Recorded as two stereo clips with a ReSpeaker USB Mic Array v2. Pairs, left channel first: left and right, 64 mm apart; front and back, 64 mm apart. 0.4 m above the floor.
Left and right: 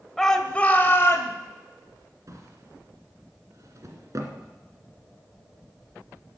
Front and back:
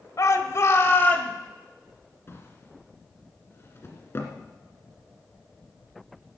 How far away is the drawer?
About 2 m.